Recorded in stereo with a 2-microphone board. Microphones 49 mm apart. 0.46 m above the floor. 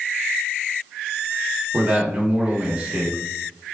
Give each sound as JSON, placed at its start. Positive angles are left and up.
{"t": 1.7, "sound": "a man speaking", "side_deg": -25, "distance_m": 1.1}